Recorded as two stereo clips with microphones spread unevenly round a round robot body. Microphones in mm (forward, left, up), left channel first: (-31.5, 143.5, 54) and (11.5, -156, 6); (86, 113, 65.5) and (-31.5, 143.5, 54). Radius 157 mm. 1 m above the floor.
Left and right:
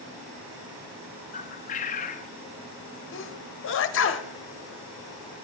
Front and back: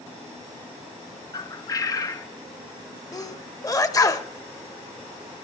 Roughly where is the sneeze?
Ahead left.